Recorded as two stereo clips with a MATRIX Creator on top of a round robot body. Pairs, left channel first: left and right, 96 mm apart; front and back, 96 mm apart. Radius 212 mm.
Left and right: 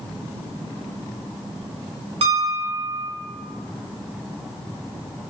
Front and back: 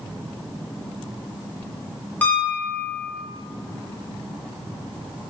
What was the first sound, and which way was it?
A piano, 75° right.